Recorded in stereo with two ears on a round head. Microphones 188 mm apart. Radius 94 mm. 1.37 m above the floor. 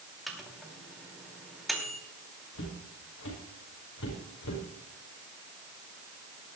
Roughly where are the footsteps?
Left.